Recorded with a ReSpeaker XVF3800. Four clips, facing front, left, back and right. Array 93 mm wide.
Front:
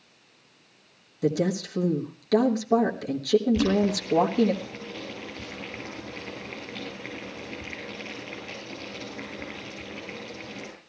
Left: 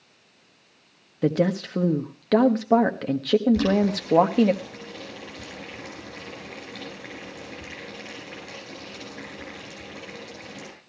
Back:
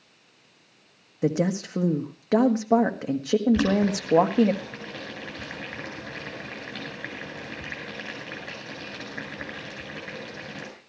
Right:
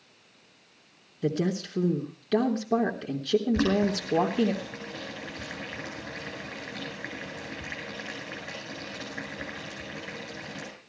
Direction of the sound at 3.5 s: 155° right.